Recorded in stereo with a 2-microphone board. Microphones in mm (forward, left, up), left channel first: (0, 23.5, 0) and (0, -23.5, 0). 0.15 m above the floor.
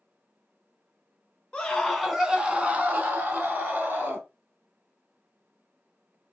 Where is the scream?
15° left (ahead or behind), 1.2 m; by 4.2 s 50° right (ahead or behind), 2.5 m.